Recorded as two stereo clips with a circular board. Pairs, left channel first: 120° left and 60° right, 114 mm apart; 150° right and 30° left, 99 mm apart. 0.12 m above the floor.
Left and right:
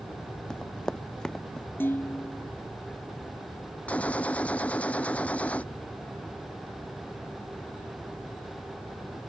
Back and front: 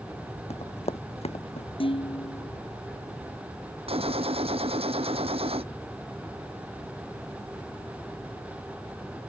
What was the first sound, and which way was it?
Running footsteps, 155° right.